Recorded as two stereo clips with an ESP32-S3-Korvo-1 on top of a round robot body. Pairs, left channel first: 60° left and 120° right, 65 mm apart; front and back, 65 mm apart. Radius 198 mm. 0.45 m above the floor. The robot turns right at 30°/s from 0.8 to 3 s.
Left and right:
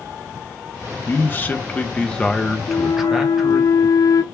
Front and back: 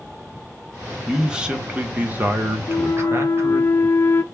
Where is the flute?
35° left, 0.5 m; by 4.2 s 45° left, 0.5 m.